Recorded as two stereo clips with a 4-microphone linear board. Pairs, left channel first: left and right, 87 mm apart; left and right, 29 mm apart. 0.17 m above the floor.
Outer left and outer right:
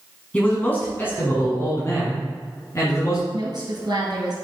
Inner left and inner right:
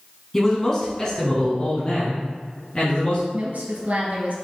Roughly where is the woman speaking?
Right.